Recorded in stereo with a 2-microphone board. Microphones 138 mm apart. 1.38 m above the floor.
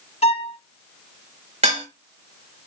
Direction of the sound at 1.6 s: 50° right (ahead or behind).